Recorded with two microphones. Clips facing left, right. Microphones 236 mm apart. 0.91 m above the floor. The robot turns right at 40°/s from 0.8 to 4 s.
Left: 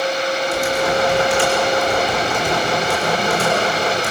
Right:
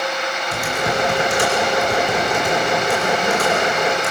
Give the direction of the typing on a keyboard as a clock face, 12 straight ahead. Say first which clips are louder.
Left 2 dB; 2 o'clock.